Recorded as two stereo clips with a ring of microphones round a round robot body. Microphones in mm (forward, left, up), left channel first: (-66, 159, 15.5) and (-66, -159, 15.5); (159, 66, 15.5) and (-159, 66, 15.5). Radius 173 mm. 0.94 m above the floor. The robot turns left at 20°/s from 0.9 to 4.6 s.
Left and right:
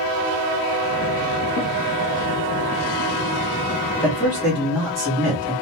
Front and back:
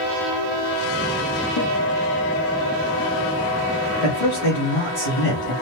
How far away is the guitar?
About 1.3 m.